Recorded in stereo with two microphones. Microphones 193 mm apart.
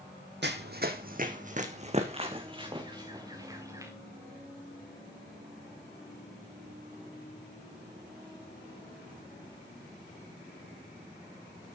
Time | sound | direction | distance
0.4 | running footsteps | 65° right (ahead or behind) | 1.2 m